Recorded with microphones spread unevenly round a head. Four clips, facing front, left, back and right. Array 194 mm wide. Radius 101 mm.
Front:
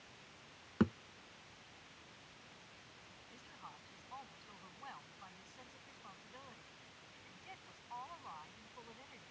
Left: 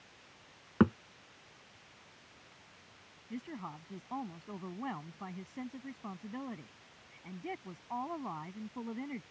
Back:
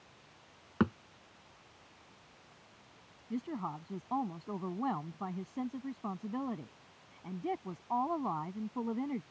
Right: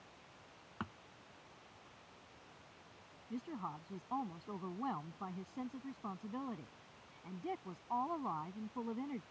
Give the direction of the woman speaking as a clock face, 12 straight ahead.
6 o'clock.